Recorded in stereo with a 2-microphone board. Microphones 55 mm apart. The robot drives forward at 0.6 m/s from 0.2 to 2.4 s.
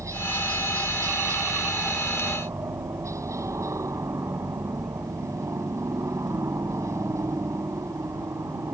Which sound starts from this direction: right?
A helicopter, at 0.0 s.